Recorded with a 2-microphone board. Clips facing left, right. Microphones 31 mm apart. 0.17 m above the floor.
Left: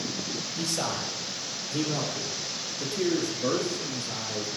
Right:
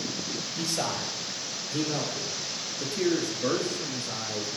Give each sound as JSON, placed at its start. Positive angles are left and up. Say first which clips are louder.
{"t": 0.6, "sound": "a man speaking", "louder": "even", "side_deg": -20, "distance_m": 4.0}